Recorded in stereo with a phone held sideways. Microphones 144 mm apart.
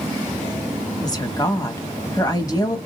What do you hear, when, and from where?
1.0 s a woman speaking: 30° left (ahead or behind), 1.3 m